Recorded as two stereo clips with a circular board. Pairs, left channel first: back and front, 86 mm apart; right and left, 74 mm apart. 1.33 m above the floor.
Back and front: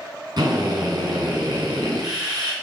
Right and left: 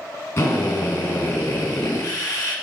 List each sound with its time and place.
0.4 s a drill: 40° right, 7 m